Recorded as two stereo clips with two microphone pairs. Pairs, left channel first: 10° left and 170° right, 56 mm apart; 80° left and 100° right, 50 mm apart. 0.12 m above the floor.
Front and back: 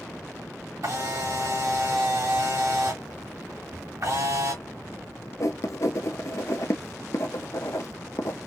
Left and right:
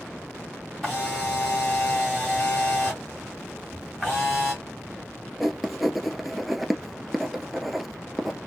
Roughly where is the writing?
Ahead.